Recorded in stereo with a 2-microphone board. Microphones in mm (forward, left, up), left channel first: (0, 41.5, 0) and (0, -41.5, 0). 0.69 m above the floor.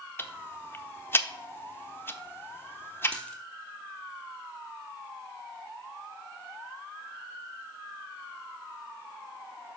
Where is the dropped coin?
10° left (ahead or behind), 2.5 m.